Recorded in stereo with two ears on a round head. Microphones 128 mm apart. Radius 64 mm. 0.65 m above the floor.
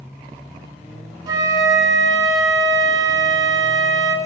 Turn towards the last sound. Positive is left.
turn(degrees=-25)  # may be behind; listen again after turning